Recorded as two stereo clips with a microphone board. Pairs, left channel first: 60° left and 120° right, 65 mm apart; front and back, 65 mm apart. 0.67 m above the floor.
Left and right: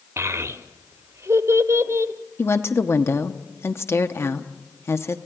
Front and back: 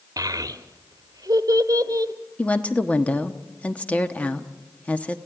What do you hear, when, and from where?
0.2 s a child speaking: 160° right, 1.2 m
2.4 s a woman speaking: 55° left, 1.2 m